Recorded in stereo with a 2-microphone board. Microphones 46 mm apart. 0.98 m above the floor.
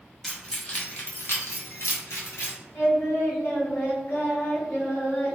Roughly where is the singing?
Left.